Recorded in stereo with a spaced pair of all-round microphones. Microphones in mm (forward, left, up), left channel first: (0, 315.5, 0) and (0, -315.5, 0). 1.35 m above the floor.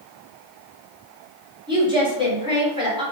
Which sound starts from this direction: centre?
A woman speaking, at 1.7 s.